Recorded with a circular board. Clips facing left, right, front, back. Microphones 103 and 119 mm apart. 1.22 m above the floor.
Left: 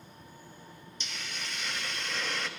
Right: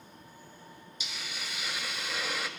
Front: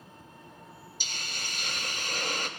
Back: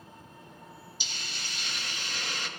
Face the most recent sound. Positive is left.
turn(degrees=-10)